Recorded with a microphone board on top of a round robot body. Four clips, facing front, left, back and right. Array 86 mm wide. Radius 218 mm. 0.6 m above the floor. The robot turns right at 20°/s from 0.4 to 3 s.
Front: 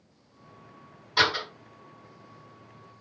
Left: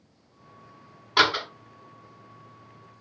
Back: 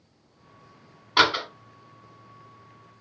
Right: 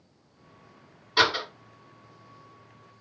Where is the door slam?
140° left, 1.7 m; by 1.4 s 145° left, 1.7 m.